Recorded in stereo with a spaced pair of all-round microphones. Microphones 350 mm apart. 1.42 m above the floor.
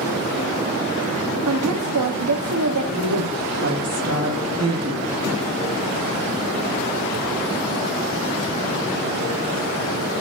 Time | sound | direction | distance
1.5 | a woman speaking | 60° right (ahead or behind) | 0.8 m
2.9 | a woman speaking | 55° right (ahead or behind) | 3.5 m